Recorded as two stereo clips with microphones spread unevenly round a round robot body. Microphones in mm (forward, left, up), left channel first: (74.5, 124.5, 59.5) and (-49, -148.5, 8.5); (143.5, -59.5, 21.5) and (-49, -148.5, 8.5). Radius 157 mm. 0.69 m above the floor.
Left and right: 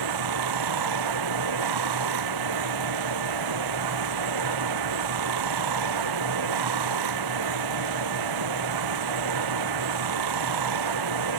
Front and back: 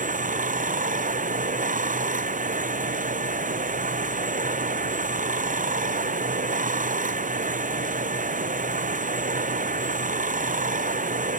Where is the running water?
105° right.